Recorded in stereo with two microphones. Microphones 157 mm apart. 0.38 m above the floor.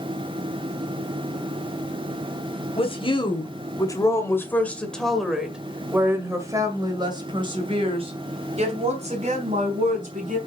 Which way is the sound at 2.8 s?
35° left (ahead or behind).